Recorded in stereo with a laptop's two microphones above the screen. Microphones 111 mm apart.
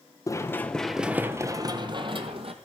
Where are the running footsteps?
25° left (ahead or behind), 1.1 m; by 2.5 s 55° right (ahead or behind), 1.8 m.